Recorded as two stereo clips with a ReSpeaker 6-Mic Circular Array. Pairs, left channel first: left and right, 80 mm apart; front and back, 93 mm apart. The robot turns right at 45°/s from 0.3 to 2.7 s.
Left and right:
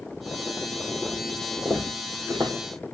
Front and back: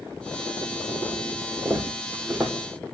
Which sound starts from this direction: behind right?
Footsteps, at 1.6 s.